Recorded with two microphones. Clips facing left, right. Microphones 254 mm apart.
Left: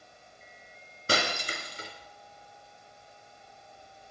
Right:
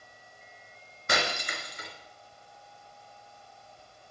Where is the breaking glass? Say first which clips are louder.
Left 1 dB; 35° left (ahead or behind), 2 m.